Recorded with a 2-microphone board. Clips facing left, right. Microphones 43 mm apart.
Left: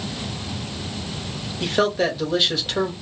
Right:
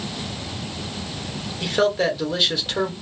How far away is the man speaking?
About 1.2 m.